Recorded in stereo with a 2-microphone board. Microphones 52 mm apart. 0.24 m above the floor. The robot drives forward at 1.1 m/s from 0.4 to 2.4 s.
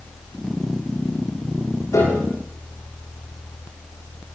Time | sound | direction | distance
1.9 | a piano | 85° left | 10 m